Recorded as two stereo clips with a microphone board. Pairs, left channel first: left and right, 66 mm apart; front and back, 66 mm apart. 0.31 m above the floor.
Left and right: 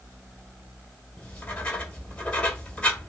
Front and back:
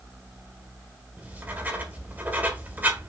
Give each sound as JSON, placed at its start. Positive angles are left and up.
{"t": 1.2, "sound": "writing", "azimuth_deg": 150, "distance_m": 1.8}